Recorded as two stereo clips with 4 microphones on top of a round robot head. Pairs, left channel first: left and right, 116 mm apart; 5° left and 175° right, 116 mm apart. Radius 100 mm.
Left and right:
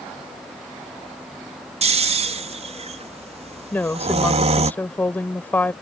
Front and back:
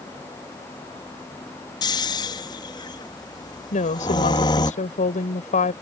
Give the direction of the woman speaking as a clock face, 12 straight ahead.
11 o'clock.